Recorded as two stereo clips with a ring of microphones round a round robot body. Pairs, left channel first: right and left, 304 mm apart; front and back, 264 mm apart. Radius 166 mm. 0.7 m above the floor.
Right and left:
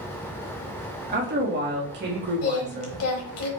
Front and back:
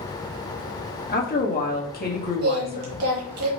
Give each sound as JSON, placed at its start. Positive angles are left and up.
{"t": 1.1, "sound": "a woman speaking", "azimuth_deg": 45, "distance_m": 1.6}
{"t": 2.4, "sound": "singing", "azimuth_deg": -135, "distance_m": 1.0}